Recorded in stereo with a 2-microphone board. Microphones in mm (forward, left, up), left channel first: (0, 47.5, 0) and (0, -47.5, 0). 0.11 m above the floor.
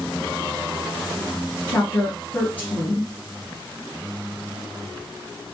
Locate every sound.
1.7 s a woman speaking: 20° left (ahead or behind), 1.5 m